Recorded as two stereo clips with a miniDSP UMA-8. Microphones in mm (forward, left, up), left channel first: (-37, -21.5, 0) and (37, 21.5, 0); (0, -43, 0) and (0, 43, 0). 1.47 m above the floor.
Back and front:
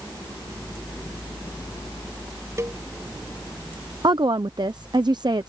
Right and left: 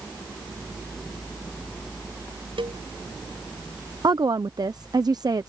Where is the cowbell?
85° left.